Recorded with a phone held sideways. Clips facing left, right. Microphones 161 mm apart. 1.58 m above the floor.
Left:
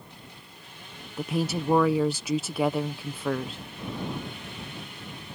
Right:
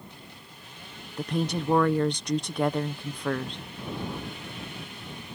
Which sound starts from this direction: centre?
A woman speaking, at 1.2 s.